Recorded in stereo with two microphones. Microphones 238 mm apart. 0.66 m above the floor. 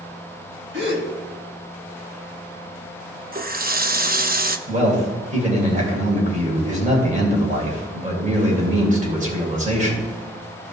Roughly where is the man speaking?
Right.